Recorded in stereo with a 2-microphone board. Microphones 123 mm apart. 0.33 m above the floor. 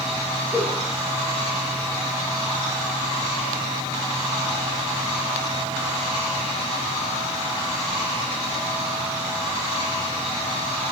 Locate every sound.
0.5 s a giggle: 10° right (ahead or behind), 2.0 m